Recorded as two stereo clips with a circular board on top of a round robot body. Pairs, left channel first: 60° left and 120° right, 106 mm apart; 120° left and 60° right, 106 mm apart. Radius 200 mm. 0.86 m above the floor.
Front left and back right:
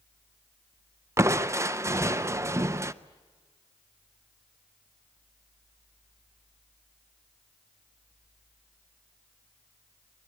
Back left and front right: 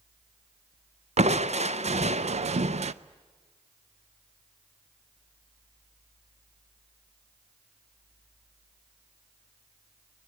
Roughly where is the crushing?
Ahead right.